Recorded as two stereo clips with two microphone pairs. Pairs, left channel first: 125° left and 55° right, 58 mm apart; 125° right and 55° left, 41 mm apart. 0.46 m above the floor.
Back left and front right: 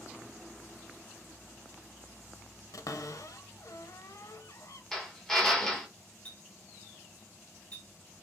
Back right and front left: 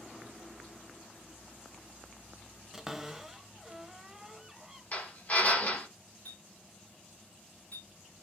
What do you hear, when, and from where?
2.7 s a cupboard door: 135° left, 0.6 m
4.9 s a drill: 155° right, 1.8 m
6.2 s a clink: 170° right, 3 m